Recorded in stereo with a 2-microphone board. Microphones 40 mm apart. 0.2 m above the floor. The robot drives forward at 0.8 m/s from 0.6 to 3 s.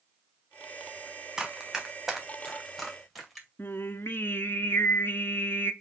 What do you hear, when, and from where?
1.4 s running footsteps: 20° right (ahead or behind), 2 m; by 3.5 s centre (ahead or behind), 2.5 m
3.6 s singing: 70° left (ahead or behind), 0.6 m